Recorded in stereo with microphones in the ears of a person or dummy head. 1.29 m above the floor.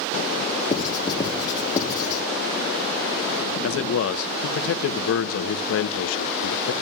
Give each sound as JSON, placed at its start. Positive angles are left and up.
{"t": 0.7, "sound": "writing", "side_deg": 25, "distance_m": 1.2}
{"t": 3.6, "sound": "a man speaking", "side_deg": 80, "distance_m": 0.7}